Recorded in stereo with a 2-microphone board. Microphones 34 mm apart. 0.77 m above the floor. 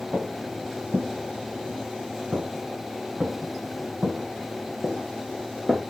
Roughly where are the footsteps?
Right.